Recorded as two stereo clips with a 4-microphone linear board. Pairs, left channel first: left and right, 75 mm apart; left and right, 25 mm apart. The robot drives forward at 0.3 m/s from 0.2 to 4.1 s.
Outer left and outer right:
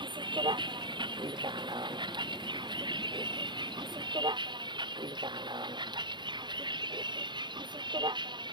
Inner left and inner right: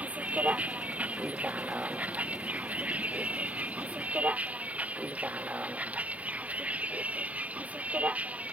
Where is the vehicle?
80° right; by 8.5 s 75° right (ahead or behind).